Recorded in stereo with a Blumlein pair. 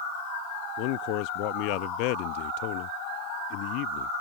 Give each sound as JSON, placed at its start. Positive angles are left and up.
{"t": 0.8, "sound": "a man speaking", "azimuth_deg": 45}